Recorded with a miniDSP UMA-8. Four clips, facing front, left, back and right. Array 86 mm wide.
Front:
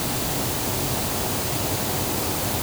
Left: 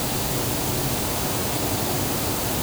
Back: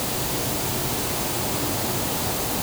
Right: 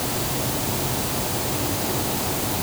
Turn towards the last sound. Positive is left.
No sound to turn to.